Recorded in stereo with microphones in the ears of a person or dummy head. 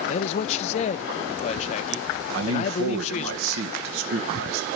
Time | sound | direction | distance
0.1 | a man speaking | 35° left (ahead or behind) | 0.6 m
2.3 | a man speaking | 70° right (ahead or behind) | 1.8 m